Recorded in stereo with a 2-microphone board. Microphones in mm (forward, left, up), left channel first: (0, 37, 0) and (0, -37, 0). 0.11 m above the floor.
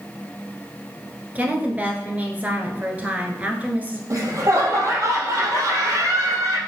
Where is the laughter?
40° right (ahead or behind), 2.5 m.